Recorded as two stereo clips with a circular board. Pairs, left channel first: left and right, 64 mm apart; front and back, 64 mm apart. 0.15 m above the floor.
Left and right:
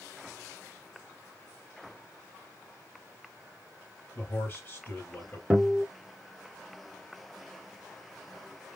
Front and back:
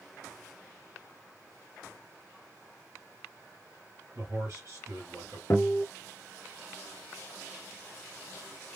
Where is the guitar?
15° right, 1.1 m.